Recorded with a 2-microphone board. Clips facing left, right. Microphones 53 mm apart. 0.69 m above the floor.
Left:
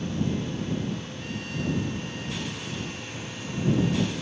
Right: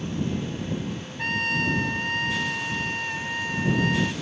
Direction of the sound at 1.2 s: 75° right (ahead or behind).